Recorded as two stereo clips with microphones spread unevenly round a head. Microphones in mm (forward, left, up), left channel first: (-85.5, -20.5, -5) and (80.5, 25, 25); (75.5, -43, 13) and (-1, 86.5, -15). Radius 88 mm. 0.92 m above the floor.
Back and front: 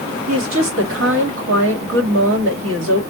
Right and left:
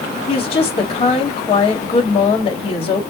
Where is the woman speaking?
5° right, 2.5 m.